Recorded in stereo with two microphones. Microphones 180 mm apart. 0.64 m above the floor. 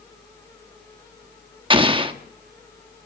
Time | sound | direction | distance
1.7 | an explosion | 30° right (ahead or behind) | 0.8 m